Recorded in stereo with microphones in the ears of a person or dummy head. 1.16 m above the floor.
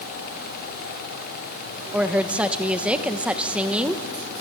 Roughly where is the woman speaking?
Centre.